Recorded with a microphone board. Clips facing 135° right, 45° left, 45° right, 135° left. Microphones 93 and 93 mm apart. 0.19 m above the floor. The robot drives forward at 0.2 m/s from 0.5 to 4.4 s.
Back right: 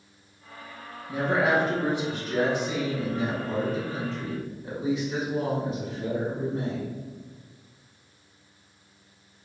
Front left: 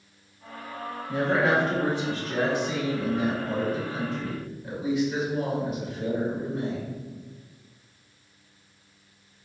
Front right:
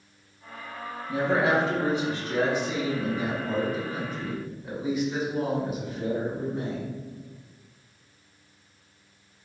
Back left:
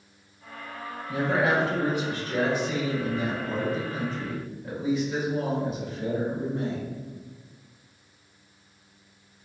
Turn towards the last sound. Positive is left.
turn(degrees=-115)